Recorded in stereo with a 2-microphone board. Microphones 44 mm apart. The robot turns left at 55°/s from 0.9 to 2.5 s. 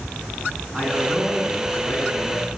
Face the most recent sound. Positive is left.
turn(degrees=100)